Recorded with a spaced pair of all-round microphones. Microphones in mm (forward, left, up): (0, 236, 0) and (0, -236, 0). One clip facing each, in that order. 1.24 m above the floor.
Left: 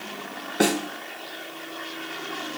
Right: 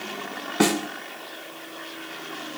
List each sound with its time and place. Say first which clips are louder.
0.6 s a snare drum: right 1 dB; 20° right (ahead or behind), 0.7 m